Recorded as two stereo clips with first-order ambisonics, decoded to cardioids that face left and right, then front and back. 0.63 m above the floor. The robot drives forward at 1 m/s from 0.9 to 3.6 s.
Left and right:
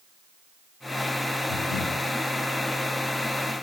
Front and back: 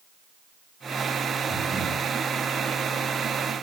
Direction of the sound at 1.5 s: 115° left.